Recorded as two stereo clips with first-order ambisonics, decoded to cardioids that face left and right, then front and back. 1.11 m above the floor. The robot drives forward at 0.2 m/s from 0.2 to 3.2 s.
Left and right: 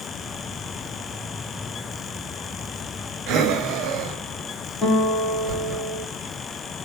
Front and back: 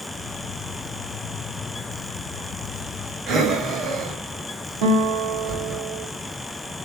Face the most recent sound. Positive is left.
turn(degrees=160)